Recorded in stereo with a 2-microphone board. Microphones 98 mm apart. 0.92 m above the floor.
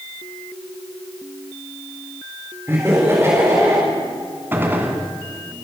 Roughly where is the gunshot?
Centre.